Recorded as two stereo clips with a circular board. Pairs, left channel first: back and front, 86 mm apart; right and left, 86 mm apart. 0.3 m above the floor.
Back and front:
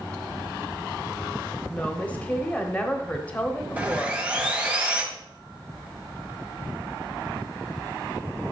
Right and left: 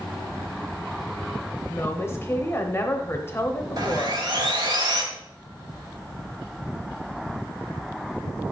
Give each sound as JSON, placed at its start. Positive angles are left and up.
{"t": 1.7, "sound": "a woman speaking", "azimuth_deg": -120, "distance_m": 1.0}
{"t": 3.8, "sound": "sawing", "azimuth_deg": 70, "distance_m": 1.3}